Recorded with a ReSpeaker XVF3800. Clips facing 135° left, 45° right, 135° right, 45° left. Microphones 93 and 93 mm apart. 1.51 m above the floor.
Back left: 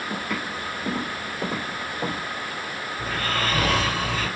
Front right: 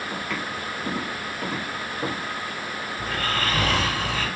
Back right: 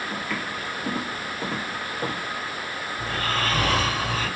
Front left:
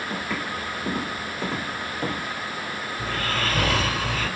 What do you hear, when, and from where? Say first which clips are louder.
0.1 s footsteps: back left 2 dB, front left 1 dB; 75° left, 1.5 m; by 2.2 s 165° left, 1.9 m
3.0 s snoring: even, back right 1 dB; 145° right, 1.9 m